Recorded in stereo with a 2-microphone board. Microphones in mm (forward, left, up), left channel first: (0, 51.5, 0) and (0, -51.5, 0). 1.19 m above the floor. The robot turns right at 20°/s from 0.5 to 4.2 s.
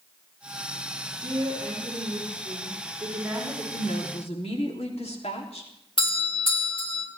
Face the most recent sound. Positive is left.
turn(degrees=55)  # may be behind; listen again after turning